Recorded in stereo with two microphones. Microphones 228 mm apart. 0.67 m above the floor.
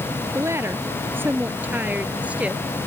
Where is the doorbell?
No doorbell in this recording.